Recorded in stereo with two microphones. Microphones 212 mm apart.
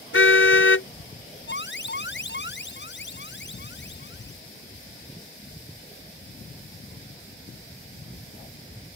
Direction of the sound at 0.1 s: 70° left (ahead or behind).